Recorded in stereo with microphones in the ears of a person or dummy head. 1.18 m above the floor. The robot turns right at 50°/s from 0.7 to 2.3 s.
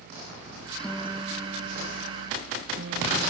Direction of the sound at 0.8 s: 165° left.